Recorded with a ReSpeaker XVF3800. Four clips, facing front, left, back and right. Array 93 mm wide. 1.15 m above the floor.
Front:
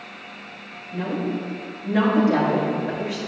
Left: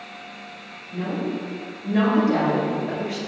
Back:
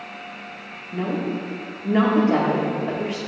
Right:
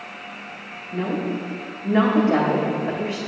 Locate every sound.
0.9 s a woman speaking: 135° right, 3.5 m